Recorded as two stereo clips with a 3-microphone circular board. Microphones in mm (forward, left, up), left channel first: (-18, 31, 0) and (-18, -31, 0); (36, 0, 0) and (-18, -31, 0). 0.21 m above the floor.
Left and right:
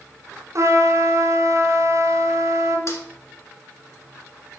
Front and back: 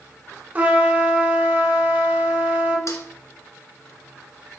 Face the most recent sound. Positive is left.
turn(degrees=60)